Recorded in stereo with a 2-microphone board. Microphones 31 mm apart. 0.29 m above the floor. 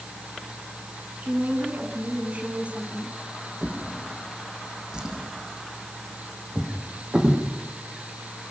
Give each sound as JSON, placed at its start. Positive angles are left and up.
{"t": 1.2, "sound": "a woman speaking", "side_deg": -55, "distance_m": 4.0}
{"t": 3.6, "sound": "a drawer", "side_deg": -25, "distance_m": 5.0}